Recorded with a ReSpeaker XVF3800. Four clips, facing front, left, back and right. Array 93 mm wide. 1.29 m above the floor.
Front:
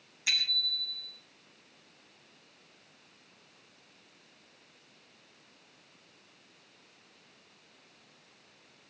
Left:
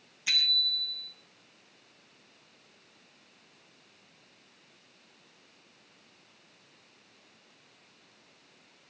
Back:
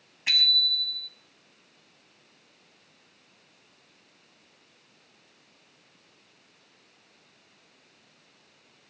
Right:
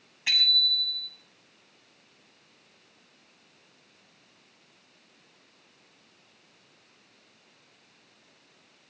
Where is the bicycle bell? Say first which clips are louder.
Right 4 dB, back 6 dB; 130° right, 7 m.